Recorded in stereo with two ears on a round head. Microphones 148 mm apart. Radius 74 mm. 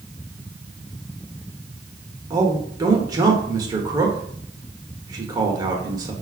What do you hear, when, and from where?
2.3 s a man speaking: 25° right (ahead or behind), 0.9 m